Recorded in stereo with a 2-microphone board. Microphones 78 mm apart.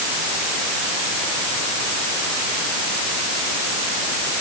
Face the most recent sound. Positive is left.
No sound to turn to.